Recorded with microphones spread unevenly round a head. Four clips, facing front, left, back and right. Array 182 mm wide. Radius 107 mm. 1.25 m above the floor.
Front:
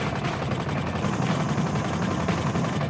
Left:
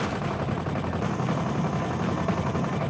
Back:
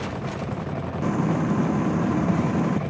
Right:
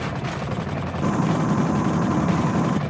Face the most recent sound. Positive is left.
turn(degrees=-145)